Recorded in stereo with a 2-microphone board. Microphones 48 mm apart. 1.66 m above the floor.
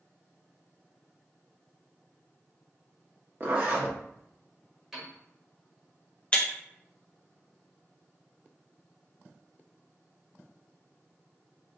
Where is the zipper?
40° right (ahead or behind), 1.1 m.